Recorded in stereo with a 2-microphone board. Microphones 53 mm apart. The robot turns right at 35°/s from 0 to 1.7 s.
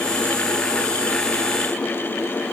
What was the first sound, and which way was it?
Only background noise.